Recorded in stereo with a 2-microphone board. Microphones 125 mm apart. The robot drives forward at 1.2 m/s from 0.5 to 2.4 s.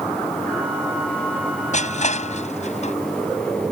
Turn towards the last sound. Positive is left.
turn(degrees=70)  # may be behind; listen again after turning